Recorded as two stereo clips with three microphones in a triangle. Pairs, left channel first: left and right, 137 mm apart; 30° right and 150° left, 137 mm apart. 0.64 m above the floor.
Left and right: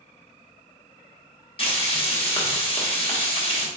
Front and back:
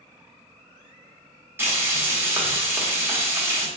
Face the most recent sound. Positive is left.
turn(degrees=85)